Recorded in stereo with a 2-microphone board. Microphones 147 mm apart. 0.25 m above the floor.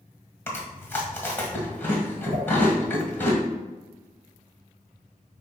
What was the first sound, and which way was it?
Chewing, 15° left (ahead or behind).